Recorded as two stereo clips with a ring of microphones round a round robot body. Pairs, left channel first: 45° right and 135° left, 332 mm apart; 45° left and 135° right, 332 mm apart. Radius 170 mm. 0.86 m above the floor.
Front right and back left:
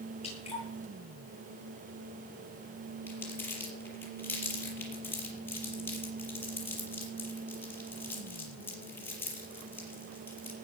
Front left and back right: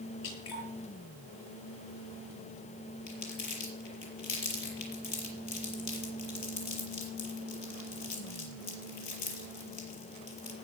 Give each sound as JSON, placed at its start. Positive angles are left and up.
{"t": 0.2, "sound": "dripping", "azimuth_deg": 25, "distance_m": 8.0}
{"t": 3.1, "sound": "crumpling", "azimuth_deg": 40, "distance_m": 5.0}